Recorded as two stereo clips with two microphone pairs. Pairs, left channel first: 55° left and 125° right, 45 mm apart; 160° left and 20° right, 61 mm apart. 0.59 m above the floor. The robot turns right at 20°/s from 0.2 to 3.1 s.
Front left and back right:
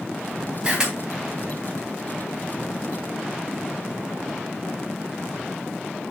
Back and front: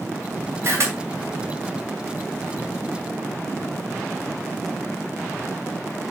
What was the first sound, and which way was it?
A camera shutter, 55° right.